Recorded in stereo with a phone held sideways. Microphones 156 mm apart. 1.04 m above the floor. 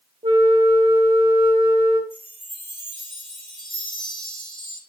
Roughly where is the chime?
Left.